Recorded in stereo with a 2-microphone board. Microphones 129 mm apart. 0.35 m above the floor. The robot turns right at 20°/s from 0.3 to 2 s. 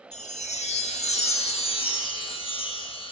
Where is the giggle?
No giggle in this recording.